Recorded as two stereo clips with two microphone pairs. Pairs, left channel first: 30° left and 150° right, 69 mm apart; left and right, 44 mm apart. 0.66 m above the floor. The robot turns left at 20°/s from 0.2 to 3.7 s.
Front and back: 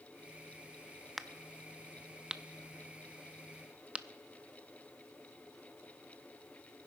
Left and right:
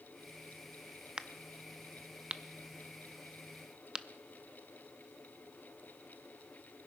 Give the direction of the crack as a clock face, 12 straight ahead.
2 o'clock.